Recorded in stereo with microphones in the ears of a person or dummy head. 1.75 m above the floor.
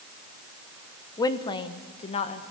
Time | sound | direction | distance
1.2 | a woman speaking | 20° left (ahead or behind) | 1.1 m